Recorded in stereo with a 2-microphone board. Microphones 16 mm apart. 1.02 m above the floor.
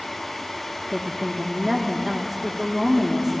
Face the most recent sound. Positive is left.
turn(degrees=-45)  # may be behind; listen again after turning